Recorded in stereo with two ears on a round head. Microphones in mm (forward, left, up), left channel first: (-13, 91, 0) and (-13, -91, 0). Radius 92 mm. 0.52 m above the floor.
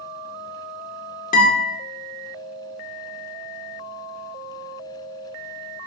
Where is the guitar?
45° left (ahead or behind), 1.7 m.